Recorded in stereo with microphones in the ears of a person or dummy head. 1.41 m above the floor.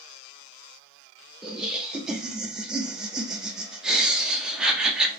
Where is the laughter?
5° right (ahead or behind), 0.5 m.